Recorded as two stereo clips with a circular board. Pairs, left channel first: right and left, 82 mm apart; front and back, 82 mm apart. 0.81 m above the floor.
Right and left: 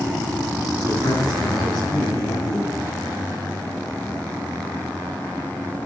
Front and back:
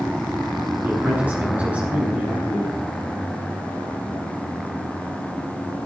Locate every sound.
0.8 s a man speaking: 110° right, 8.5 m; by 2.7 s 105° right, 7.5 m